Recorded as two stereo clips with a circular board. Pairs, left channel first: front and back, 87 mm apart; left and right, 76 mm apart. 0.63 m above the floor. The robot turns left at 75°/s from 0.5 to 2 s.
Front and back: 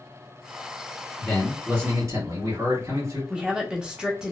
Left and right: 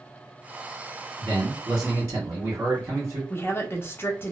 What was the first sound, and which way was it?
A man speaking, 65° right.